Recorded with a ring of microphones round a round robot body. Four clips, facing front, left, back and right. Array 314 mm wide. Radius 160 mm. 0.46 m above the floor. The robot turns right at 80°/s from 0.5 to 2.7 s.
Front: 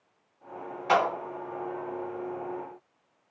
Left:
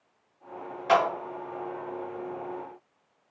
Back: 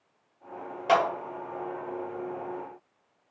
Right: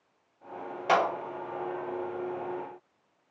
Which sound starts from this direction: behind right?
A clap, at 0.9 s.